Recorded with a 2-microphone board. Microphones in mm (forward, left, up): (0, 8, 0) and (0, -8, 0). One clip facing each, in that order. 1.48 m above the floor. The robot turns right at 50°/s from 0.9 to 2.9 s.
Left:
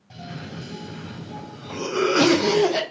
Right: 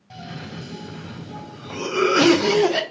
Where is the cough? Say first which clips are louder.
Right 1 dB; 165° right, 0.6 m; by 2.8 s 70° right, 0.6 m.